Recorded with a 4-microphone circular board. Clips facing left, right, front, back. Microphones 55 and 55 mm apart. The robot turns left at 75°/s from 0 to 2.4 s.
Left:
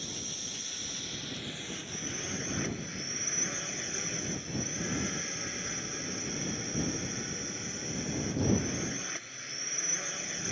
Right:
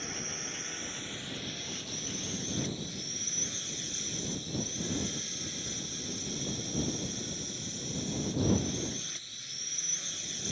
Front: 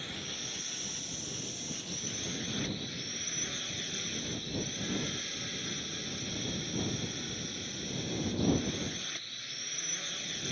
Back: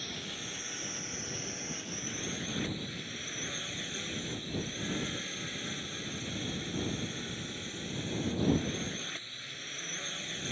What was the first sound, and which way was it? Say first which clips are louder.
A drone: right 3 dB, even; 75° right.